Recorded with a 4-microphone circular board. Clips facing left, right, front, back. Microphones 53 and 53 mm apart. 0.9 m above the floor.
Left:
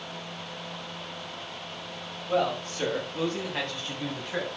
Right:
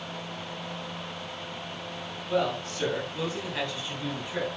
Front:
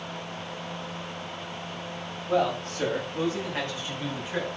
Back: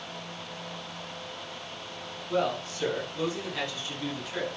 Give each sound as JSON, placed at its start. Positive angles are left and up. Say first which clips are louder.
{"t": 2.3, "sound": "a man speaking", "louder": "left 1 dB, front 3 dB", "azimuth_deg": 35, "distance_m": 6.5}